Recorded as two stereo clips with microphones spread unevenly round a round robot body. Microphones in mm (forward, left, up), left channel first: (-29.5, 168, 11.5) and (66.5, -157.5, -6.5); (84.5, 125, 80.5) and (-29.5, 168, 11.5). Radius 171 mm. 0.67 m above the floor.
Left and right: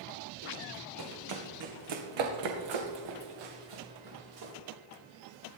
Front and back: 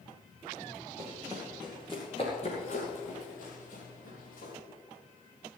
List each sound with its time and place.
1.0 s running footsteps: 120° right, 2 m; by 4.5 s 45° right, 4.5 m